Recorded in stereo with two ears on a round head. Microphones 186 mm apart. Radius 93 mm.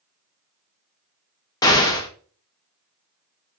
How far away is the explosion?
About 0.9 m.